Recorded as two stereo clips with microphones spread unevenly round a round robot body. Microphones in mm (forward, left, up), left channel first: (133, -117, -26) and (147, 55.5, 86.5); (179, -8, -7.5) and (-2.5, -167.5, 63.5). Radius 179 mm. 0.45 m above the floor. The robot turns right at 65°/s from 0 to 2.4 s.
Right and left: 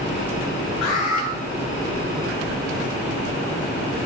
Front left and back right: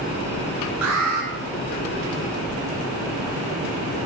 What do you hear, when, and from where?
0.8 s an alarm: 150° right, 9 m; by 1.3 s 120° right, 9 m